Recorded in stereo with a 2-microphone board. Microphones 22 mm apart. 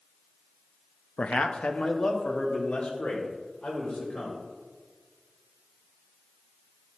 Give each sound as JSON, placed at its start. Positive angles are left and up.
{"t": 1.2, "sound": "a man speaking", "side_deg": 65, "distance_m": 0.7}